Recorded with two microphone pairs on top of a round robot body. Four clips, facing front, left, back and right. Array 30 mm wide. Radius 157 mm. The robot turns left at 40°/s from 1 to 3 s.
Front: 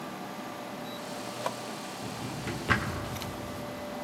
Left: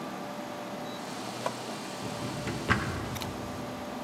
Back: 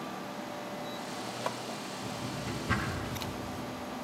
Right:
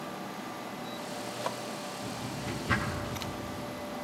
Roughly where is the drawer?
Ahead left.